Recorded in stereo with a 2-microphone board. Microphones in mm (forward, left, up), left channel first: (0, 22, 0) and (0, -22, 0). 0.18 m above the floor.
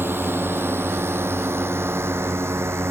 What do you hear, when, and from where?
0.0 s a drone: 60° right (ahead or behind); by 2.9 s 80° right